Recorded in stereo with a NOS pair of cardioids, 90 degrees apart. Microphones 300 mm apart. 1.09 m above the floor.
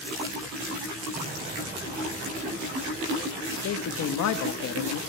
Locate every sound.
1.1 s an explosion: 30° right, 9 m
3.5 s a man speaking: 65° left, 1.4 m